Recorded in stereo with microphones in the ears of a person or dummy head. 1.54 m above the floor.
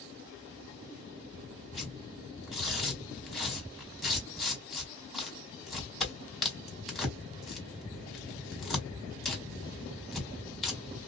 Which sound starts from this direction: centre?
Tearing paper, at 1.7 s.